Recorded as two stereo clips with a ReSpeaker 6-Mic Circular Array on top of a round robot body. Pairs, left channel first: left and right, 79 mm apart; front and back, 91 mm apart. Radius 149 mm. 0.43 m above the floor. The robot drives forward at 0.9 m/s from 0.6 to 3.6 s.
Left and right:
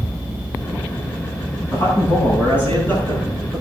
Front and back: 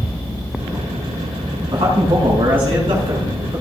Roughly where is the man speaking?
Behind left.